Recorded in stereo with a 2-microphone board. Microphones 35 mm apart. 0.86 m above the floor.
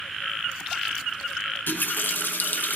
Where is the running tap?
75° left (ahead or behind), 0.5 m.